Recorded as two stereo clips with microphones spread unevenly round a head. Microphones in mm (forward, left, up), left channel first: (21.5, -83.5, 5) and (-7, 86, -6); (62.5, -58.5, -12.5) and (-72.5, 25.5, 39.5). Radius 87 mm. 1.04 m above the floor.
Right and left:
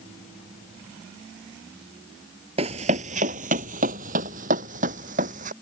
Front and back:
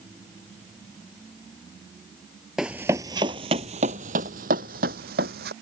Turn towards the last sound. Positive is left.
turn(degrees=145)